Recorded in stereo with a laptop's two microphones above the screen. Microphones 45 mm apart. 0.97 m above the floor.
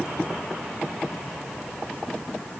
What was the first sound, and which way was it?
Only background noise.